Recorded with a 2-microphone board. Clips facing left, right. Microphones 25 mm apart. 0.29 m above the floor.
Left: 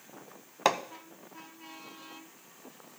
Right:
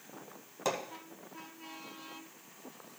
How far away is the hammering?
About 0.6 m.